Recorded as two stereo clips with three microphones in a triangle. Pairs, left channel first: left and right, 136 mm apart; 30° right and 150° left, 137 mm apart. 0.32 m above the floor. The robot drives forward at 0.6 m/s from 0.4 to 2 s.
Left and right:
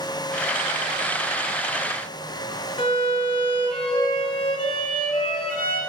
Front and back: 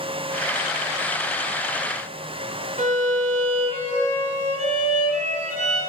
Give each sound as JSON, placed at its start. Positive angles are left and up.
{"t": 2.8, "sound": "a violin", "azimuth_deg": 135, "distance_m": 1.0}